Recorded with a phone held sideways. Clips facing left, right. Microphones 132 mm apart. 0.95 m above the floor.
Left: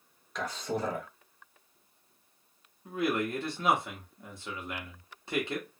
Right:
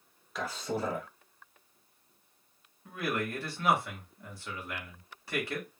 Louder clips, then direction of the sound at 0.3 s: Left 1 dB; 5° right (ahead or behind).